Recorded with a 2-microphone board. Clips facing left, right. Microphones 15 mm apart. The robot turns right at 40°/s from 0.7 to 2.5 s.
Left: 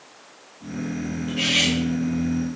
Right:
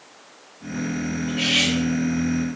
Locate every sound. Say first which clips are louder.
1.3 s cutlery clinking: even; 10° left (ahead or behind), 2 m; by 1.7 s 10° right (ahead or behind), 2 m